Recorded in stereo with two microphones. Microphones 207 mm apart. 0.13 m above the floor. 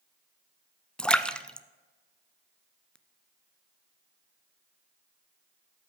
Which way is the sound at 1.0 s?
5° left (ahead or behind).